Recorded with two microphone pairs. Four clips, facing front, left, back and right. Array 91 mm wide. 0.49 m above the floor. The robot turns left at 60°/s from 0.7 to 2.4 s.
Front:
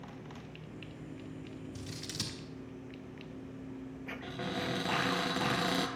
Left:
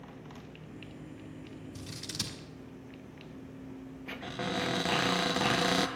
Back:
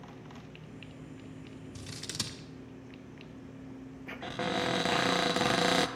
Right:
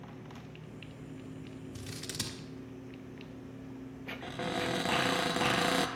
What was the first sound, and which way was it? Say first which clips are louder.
Scissors: even, even; 140° right.